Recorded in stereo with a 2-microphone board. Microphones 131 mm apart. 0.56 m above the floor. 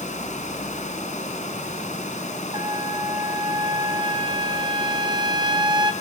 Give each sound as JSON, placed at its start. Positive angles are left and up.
{"t": 0.0, "sound": "running water", "side_deg": 70, "distance_m": 4.5}
{"t": 2.5, "sound": "a trumpet", "side_deg": -35, "distance_m": 1.8}